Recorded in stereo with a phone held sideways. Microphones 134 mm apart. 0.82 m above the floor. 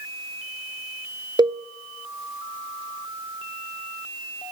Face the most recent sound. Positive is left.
turn(degrees=-35)  # may be behind; listen again after turning